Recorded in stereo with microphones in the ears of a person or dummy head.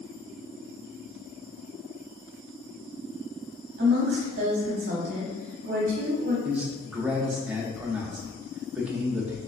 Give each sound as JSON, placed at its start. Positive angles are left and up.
{"t": 3.8, "sound": "a woman speaking", "side_deg": -50, "distance_m": 0.8}
{"t": 6.5, "sound": "a man speaking", "side_deg": -10, "distance_m": 0.7}